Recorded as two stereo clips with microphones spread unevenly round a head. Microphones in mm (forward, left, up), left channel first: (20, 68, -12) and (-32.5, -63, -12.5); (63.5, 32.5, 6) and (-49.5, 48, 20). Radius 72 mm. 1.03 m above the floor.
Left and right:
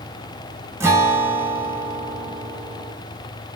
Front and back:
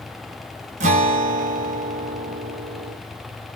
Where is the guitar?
Straight behind, 0.7 m.